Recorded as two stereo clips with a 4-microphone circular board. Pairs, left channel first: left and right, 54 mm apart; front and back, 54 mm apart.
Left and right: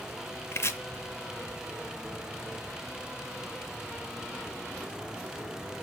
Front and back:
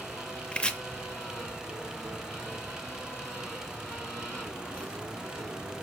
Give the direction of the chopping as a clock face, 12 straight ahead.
10 o'clock.